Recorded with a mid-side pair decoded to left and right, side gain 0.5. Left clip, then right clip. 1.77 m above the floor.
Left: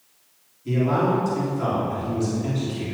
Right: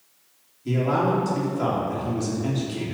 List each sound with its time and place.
0.7 s a man speaking: 25° right, 3 m